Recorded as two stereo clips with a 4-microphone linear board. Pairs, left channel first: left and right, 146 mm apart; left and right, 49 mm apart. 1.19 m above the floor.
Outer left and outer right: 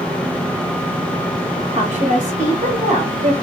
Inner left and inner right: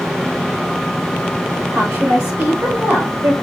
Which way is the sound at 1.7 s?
65° right (ahead or behind).